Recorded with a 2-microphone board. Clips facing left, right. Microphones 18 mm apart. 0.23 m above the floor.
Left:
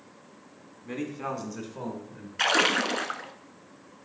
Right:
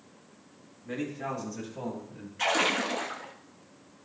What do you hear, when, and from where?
0.8 s a man speaking: 45° left (ahead or behind), 2.5 m; by 2.3 s 50° left (ahead or behind), 3.5 m
2.4 s a splash: 55° left (ahead or behind), 0.9 m